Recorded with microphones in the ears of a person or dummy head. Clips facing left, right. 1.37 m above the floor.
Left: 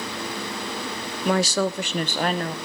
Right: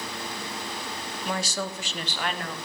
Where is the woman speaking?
40° left (ahead or behind), 0.6 m; by 2.6 s 25° left (ahead or behind), 1.2 m.